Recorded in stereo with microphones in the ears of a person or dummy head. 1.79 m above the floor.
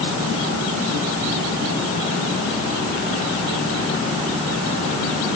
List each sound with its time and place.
Only background noise.